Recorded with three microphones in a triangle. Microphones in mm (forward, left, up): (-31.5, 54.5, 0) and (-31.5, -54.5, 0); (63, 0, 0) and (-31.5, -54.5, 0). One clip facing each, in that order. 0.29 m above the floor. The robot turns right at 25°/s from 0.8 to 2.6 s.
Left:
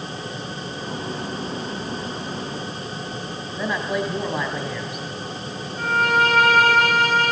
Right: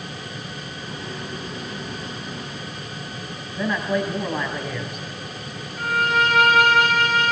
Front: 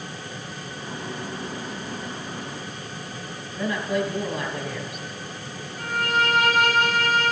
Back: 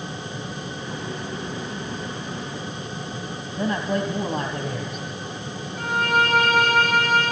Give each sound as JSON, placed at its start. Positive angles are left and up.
{"t": 3.6, "sound": "a man speaking", "azimuth_deg": 175, "distance_m": 2.0}
{"t": 5.8, "sound": "a violin", "azimuth_deg": 170, "distance_m": 9.5}